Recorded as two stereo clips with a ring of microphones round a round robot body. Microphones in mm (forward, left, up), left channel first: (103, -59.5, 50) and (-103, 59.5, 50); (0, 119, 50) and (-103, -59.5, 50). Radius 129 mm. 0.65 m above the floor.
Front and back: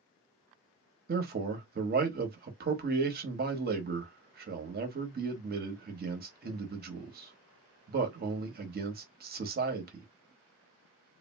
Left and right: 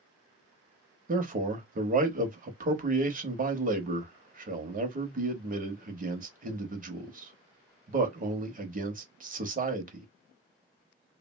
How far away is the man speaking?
About 1.0 m.